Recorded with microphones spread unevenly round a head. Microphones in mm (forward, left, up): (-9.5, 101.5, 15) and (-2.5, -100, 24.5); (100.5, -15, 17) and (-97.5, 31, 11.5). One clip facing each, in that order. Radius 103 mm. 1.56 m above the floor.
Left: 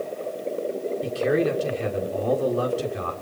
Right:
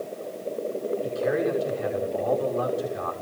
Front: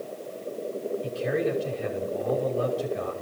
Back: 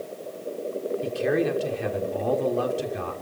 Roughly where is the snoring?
I don't hear snoring.